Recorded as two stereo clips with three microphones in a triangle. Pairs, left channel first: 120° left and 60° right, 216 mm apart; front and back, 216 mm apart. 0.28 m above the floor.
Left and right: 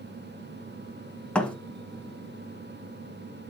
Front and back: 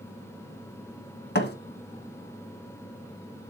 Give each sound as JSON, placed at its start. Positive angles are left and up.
{"t": 1.4, "sound": "a thud", "azimuth_deg": 35, "distance_m": 1.1}